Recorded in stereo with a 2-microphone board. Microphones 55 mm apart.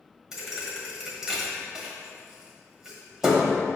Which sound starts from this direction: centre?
A thud, at 0.3 s.